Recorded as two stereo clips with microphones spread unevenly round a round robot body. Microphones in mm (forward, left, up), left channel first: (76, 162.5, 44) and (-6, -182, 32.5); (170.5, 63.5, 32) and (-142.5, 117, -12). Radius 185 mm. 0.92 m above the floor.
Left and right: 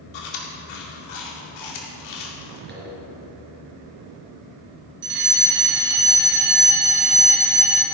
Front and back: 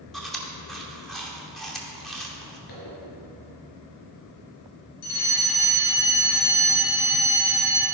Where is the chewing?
80° left, 2.5 m.